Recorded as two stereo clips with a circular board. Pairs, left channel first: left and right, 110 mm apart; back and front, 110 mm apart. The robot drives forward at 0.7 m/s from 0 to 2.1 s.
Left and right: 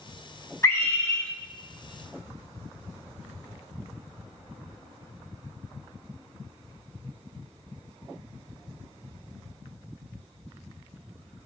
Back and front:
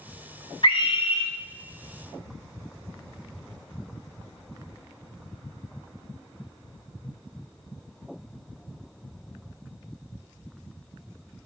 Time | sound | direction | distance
0.6 | a scream | 150° left | 2 m